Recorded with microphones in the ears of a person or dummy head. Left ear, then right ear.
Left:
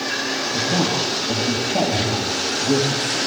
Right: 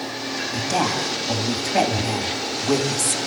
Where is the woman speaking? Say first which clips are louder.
Even; 55° right (ahead or behind), 2.5 m.